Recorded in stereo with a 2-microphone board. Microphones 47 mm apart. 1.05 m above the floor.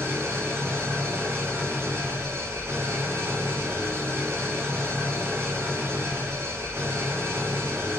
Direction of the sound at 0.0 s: 60° right (ahead or behind).